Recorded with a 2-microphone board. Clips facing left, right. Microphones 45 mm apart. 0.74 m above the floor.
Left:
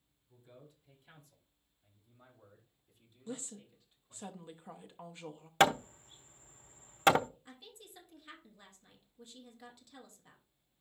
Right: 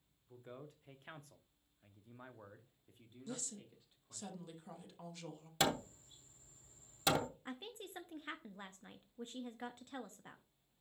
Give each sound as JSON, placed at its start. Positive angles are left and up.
{"t": 0.3, "sound": "a man speaking", "side_deg": -50, "distance_m": 1.4}
{"t": 3.3, "sound": "a woman speaking", "side_deg": 25, "distance_m": 1.0}
{"t": 5.6, "sound": "hammering", "side_deg": 50, "distance_m": 0.6}
{"t": 7.5, "sound": "a woman speaking", "side_deg": -40, "distance_m": 0.7}